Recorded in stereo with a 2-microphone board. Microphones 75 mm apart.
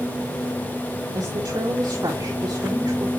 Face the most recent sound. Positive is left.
turn(degrees=-55)  # may be behind; listen again after turning